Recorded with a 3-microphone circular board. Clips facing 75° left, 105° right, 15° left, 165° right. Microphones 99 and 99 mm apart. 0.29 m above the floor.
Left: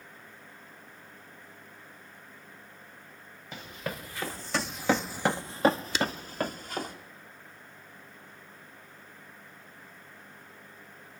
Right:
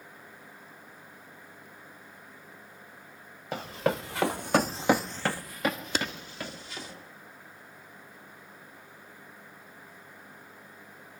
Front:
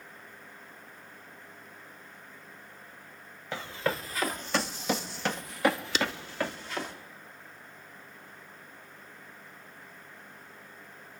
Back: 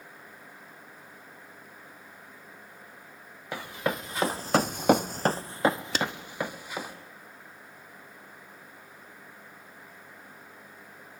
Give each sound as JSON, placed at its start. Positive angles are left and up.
{"t": 3.5, "sound": "running footsteps", "azimuth_deg": -90, "distance_m": 1.6}
{"t": 6.0, "sound": "a clap", "azimuth_deg": -130, "distance_m": 1.2}